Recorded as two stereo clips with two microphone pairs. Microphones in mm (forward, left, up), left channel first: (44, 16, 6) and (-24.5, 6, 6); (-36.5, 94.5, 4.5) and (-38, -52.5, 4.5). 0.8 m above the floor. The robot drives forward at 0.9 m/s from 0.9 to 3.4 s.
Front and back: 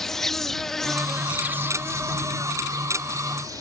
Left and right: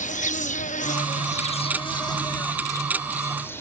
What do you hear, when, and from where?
0.0 s an insect: 90° left; by 3.6 s 165° left